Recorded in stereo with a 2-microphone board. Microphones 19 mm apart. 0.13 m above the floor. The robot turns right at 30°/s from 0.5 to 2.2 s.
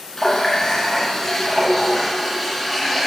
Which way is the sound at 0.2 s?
25° left (ahead or behind).